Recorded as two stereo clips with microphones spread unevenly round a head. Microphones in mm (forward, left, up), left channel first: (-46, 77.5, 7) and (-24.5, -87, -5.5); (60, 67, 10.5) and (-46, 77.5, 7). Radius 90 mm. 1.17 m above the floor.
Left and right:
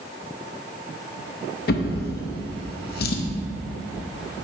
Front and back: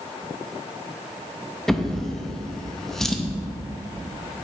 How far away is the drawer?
About 0.7 m.